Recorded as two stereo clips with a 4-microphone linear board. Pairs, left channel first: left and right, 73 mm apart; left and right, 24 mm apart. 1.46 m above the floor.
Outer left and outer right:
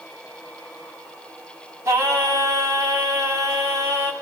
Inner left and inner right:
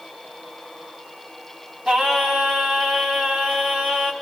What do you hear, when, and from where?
1.9 s singing: 35° right (ahead or behind), 4 m